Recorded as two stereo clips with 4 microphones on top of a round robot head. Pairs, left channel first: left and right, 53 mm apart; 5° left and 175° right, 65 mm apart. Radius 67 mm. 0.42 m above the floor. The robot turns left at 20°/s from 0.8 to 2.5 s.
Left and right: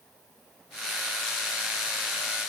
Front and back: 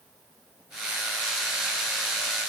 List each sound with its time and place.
Only background noise.